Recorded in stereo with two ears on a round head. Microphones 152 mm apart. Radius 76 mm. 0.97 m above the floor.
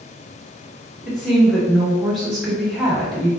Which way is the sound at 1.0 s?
Centre (ahead or behind).